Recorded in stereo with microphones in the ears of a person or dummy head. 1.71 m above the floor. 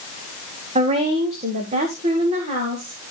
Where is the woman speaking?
30° right (ahead or behind), 1.0 m; by 3.0 s 35° right (ahead or behind), 2 m.